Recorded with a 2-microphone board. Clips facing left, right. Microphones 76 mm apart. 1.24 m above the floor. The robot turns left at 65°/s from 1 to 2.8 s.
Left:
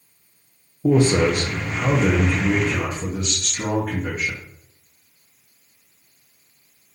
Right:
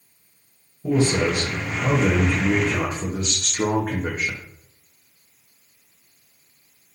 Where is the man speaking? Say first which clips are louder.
Left 4 dB; 80° left, 0.7 m; by 4.4 s 35° right, 0.7 m.